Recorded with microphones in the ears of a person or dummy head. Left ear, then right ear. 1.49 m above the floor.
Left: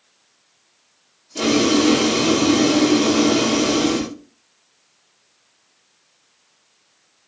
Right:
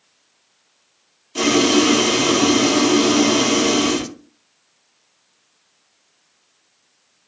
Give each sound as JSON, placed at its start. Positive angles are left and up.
{"t": 1.4, "sound": "boiling", "side_deg": -45, "distance_m": 0.6}